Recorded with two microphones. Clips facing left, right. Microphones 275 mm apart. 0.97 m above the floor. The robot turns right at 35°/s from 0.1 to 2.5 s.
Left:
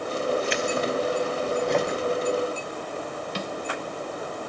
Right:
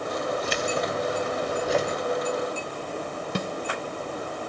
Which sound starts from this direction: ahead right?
Keys jangling, at 0.4 s.